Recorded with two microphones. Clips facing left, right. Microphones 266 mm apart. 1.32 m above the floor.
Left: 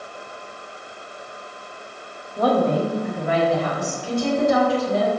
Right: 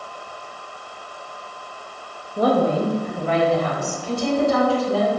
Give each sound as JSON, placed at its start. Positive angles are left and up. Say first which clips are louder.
{"t": 2.4, "sound": "a woman speaking", "louder": "right 1 dB", "side_deg": -25, "distance_m": 0.8}